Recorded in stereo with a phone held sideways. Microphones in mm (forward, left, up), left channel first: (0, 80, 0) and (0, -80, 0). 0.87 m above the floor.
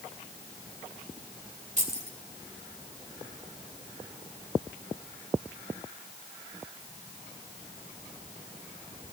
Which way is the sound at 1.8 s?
50° right (ahead or behind).